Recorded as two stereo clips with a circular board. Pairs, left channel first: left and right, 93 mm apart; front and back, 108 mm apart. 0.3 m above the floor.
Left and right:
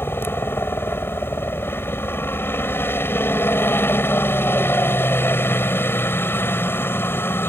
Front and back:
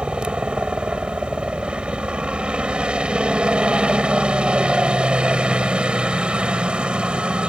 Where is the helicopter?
110° left.